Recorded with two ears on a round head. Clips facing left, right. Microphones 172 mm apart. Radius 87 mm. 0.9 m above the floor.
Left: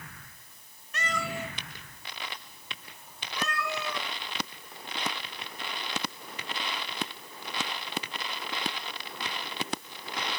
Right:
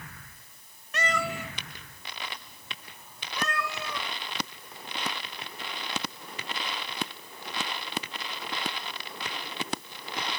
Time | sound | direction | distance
0.9 | a cat meowing | 50° right (ahead or behind) | 0.6 m